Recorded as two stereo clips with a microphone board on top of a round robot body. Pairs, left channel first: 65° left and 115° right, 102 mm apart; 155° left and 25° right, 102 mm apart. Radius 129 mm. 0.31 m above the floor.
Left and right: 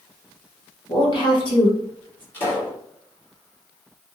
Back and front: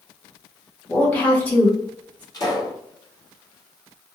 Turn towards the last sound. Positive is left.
turn(degrees=130)